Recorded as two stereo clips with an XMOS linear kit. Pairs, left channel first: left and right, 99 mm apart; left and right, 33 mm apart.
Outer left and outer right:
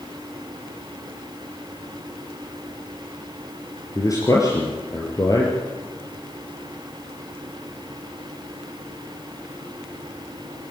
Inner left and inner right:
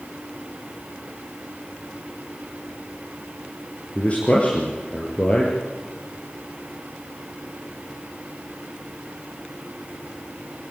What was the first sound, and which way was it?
A man speaking, 35° left (ahead or behind).